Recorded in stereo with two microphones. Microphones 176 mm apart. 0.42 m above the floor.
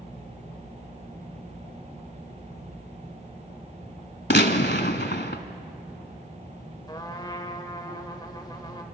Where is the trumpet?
25° left (ahead or behind), 1.6 m.